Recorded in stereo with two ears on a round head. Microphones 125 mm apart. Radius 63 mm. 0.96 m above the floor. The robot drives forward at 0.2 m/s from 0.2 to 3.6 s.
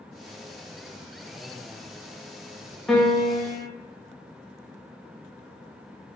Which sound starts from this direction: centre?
A piano, at 2.9 s.